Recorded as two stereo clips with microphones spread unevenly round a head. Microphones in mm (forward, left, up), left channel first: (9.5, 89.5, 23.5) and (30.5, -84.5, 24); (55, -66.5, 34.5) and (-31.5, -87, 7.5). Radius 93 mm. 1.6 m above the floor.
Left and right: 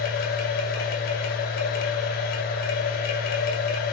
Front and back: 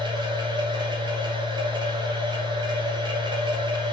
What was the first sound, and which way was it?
A machine running, 140° left.